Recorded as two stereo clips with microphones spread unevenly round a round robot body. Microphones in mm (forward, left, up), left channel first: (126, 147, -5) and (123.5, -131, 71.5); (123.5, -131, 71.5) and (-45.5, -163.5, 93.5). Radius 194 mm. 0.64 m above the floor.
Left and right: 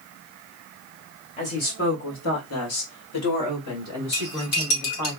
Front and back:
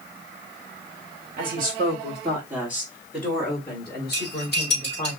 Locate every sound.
1.4 s a woman speaking: 150° left, 1.8 m; by 5.1 s 70° left, 4 m
4.1 s cutlery clinking: 75° left, 3.5 m